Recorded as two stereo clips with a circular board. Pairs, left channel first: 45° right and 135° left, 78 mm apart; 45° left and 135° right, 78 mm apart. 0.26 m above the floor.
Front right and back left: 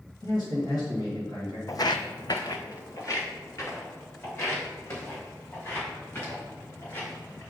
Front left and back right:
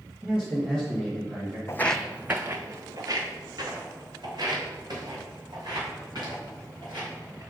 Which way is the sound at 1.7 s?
5° right.